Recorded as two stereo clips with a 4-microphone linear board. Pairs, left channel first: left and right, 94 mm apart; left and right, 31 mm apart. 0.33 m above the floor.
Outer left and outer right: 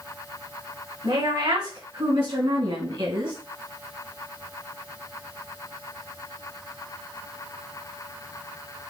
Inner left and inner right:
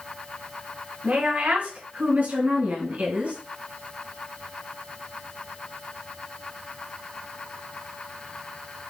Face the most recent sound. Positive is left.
turn(degrees=-65)  # may be behind; listen again after turning